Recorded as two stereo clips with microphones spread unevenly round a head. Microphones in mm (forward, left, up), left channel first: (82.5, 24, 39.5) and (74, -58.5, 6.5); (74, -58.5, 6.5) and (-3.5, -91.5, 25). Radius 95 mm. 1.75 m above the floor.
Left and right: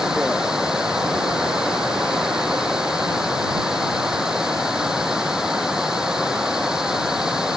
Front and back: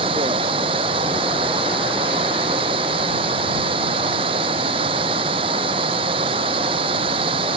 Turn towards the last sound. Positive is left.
turn(degrees=170)